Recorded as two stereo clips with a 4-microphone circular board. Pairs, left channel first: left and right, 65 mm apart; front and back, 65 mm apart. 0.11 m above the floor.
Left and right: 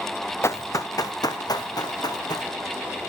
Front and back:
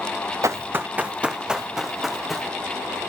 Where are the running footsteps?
140° left, 1.3 m; by 2.5 s 90° left, 3.5 m.